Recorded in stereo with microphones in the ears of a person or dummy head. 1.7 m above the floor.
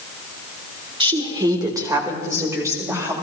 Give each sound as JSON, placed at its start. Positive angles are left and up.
{"t": 1.0, "sound": "a woman speaking", "side_deg": -30, "distance_m": 1.4}